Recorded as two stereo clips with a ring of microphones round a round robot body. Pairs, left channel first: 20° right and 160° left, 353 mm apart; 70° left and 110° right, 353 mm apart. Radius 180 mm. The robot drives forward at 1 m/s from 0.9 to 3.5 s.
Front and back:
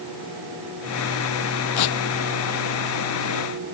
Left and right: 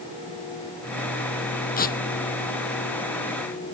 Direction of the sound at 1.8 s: Straight ahead.